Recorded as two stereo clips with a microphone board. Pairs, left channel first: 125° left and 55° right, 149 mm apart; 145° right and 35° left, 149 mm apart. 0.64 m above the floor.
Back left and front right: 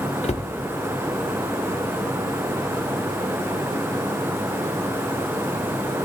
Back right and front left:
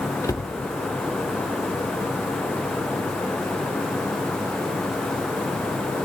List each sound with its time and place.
0.2 s a cupboard door: 150° left, 0.9 m